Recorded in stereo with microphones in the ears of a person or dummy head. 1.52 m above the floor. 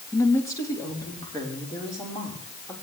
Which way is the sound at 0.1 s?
15° left (ahead or behind).